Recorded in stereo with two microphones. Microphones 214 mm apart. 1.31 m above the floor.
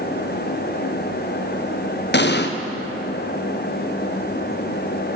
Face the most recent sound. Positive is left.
turn(degrees=55)  # may be behind; listen again after turning